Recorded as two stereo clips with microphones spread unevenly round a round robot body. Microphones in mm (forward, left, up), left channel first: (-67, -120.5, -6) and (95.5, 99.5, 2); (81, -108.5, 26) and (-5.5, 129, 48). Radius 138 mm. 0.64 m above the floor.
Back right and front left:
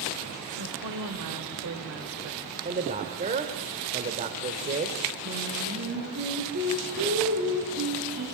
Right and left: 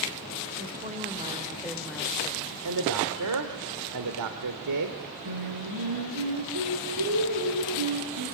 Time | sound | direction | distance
0.6 | a woman speaking | 55° left | 2.5 m
2.6 | a man speaking | 120° left | 1.9 m
5.2 | singing | 110° left | 8 m